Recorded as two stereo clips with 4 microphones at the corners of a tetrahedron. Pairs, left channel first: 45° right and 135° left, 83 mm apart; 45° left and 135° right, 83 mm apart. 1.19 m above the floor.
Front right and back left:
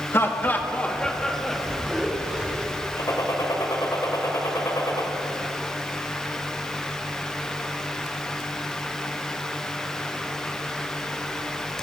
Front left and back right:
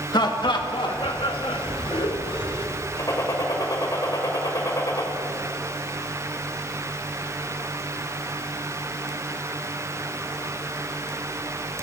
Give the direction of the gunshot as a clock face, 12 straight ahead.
12 o'clock.